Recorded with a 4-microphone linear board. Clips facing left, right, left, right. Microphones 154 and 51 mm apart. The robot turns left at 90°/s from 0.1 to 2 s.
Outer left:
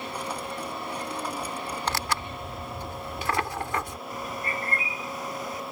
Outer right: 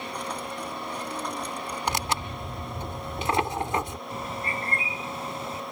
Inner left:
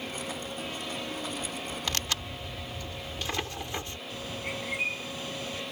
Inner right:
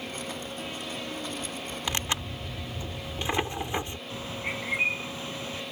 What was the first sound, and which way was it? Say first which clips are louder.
Tearing paper: outer right 2 dB, inner right 4 dB; 15° right (ahead or behind).